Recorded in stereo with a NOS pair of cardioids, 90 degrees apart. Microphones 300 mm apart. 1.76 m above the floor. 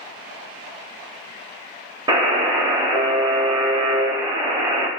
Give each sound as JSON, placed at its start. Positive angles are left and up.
{"t": 2.1, "sound": "a buzzer", "azimuth_deg": -15, "distance_m": 0.7}